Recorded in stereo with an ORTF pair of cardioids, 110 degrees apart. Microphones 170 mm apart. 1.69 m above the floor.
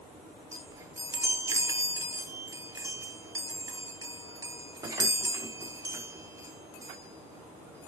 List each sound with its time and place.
0.5 s a chime: 20° right, 0.9 m